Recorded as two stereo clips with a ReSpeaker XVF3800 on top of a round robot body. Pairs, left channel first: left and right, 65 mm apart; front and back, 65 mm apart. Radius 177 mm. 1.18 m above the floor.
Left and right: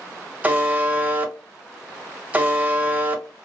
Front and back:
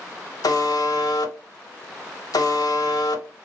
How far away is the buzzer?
About 0.8 m.